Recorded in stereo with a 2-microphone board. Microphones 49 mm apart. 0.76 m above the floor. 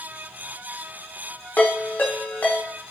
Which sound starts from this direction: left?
A ringtone, at 1.6 s.